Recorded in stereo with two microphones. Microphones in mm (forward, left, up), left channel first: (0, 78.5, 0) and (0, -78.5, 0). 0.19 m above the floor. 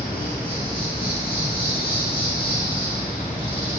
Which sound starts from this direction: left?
An insect, at 0.0 s.